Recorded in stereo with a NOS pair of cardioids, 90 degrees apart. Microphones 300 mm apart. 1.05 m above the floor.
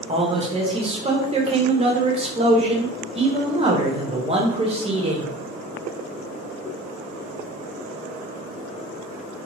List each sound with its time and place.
0.1 s a man speaking: 20° right, 0.9 m